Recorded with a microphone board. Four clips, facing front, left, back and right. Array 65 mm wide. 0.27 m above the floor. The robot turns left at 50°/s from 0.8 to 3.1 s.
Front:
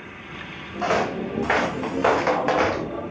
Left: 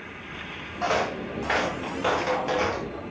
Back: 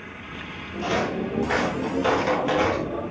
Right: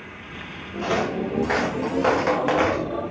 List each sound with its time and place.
0.8 s footsteps: 25° left, 4.5 m; by 2.9 s 55° right, 4 m